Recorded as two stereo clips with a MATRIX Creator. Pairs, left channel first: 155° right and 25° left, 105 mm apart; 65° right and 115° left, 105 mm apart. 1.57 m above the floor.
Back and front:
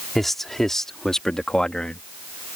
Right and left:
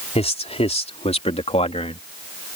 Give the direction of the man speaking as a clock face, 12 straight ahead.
2 o'clock.